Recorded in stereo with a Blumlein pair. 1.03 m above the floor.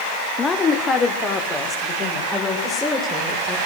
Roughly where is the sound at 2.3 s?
Ahead.